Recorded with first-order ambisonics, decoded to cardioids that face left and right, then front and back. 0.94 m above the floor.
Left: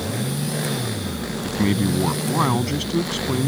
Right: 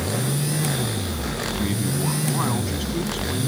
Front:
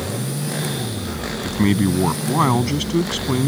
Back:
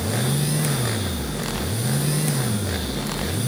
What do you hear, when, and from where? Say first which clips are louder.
1.4 s a man speaking: left 7 dB, front 9 dB; 20° left